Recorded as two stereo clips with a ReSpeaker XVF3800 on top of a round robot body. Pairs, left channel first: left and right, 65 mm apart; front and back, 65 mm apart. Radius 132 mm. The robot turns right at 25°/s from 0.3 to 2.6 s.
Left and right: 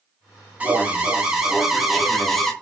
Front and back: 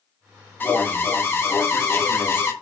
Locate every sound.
0.6 s an alarm: 40° right, 0.9 m; by 2.5 s 10° left, 0.9 m